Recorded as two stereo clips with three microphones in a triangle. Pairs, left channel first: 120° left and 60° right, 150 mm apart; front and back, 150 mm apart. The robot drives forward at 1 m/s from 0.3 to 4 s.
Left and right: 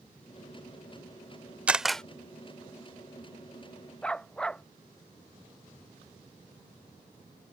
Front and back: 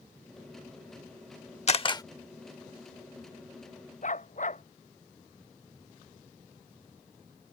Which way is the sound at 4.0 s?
35° left.